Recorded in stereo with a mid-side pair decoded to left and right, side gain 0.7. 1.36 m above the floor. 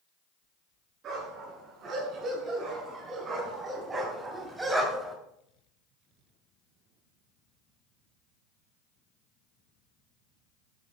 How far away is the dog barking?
About 8.5 m.